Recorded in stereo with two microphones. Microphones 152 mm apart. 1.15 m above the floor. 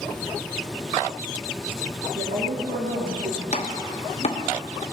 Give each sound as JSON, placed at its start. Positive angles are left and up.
{"t": 2.1, "sound": "a woman speaking", "side_deg": -70, "distance_m": 1.9}
{"t": 3.5, "sound": "chopping", "side_deg": 45, "distance_m": 1.2}